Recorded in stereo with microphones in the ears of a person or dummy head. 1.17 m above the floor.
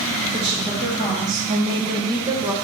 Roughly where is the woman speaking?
Right.